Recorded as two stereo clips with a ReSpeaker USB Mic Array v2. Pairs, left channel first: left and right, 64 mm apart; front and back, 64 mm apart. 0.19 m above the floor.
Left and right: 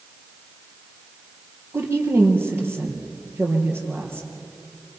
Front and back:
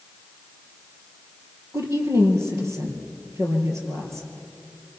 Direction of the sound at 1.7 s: 140° right.